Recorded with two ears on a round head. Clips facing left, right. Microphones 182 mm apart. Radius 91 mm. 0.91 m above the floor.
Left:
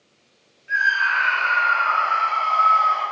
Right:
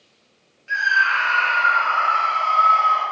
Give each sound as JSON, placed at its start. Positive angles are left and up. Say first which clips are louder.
{"t": 0.7, "sound": "a scream", "louder": "right 1 dB", "side_deg": -50, "distance_m": 0.7}